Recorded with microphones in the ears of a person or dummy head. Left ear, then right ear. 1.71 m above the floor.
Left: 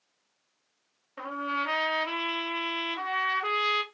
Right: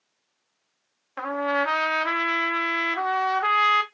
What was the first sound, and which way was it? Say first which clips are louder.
A trumpet: right 6 dB; 55° right (ahead or behind).